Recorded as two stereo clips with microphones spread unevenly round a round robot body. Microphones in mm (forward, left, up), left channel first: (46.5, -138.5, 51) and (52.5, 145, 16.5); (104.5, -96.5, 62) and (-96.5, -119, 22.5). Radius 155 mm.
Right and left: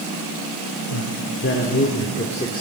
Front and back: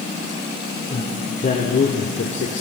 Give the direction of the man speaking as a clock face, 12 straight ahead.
2 o'clock.